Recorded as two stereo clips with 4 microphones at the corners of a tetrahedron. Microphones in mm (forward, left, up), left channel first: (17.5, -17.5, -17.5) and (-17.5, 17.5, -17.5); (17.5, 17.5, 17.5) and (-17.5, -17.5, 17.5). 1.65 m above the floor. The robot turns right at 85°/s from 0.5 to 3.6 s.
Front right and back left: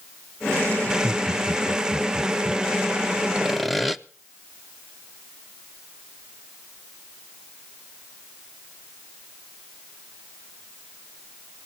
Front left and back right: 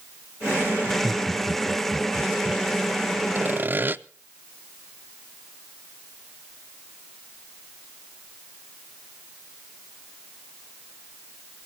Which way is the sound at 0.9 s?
115° left.